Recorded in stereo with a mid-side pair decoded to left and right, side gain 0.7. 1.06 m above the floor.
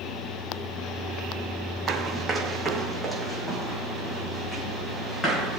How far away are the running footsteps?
About 3.5 m.